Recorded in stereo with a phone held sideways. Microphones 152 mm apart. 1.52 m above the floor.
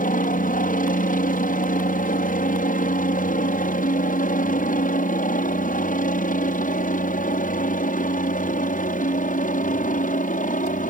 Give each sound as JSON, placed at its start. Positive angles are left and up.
{"t": 0.0, "sound": "a helicopter", "side_deg": 65}